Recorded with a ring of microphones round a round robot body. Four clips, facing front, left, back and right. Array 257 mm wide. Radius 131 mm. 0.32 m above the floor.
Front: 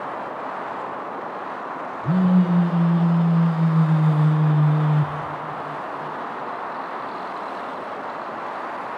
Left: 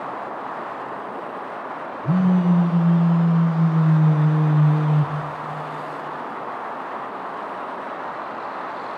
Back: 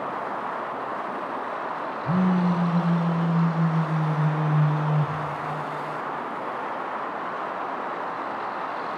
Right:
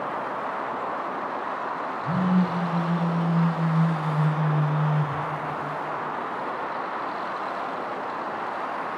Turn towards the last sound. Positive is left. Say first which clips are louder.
# left 5 dB, front 4 dB
turn(degrees=30)